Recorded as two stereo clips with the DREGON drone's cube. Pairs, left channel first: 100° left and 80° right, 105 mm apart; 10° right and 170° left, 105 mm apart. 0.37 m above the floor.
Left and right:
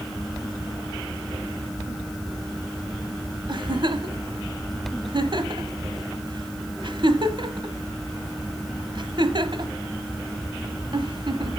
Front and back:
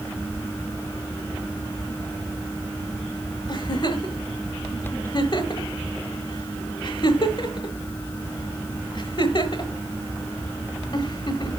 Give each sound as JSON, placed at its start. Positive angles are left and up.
{"t": 3.5, "sound": "a giggle", "azimuth_deg": -50, "distance_m": 1.2}